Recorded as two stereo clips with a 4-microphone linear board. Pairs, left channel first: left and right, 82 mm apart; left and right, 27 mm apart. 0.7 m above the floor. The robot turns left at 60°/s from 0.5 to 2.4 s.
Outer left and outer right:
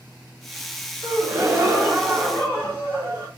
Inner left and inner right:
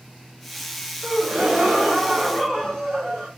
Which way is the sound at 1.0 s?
115° right.